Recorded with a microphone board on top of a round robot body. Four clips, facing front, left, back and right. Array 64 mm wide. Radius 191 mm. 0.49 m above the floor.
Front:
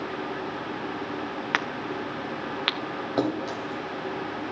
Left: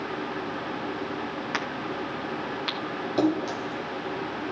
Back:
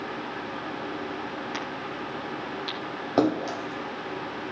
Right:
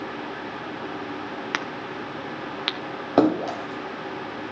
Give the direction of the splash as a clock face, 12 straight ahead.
4 o'clock.